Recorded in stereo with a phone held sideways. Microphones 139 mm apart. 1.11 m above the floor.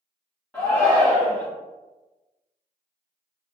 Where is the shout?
5° left (ahead or behind), 0.9 m.